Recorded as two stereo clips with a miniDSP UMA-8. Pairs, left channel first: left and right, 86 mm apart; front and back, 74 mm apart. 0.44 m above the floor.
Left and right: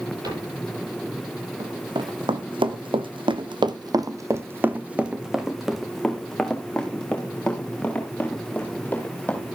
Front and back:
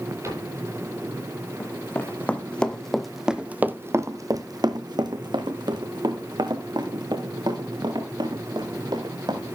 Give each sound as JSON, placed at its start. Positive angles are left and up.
{"t": 0.2, "sound": "a cupboard door", "azimuth_deg": -130, "distance_m": 9.0}
{"t": 1.6, "sound": "running footsteps", "azimuth_deg": -60, "distance_m": 2.0}